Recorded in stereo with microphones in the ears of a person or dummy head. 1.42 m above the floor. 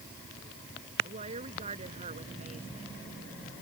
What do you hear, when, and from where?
1.0 s a woman speaking: 30° right (ahead or behind)